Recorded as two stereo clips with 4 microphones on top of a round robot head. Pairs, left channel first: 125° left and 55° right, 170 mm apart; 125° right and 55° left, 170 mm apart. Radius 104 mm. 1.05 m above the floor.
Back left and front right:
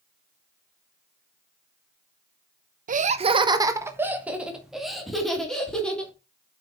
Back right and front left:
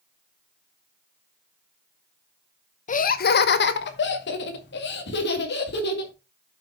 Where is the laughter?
85° right, 0.8 m; by 6.1 s 150° right, 3 m.